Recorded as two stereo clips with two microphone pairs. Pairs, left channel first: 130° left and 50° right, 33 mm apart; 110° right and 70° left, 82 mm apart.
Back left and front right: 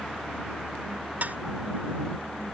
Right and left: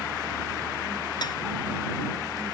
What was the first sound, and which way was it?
Dishes clattering, 80° right.